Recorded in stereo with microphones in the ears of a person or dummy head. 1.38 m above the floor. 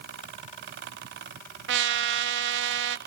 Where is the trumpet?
65° right (ahead or behind), 0.8 m.